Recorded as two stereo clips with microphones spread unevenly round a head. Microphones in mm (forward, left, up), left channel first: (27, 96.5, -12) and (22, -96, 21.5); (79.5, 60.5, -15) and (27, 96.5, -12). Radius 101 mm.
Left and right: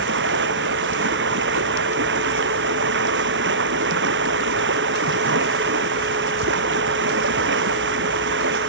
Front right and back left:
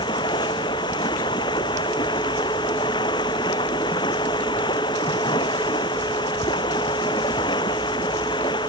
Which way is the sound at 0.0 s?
65° right.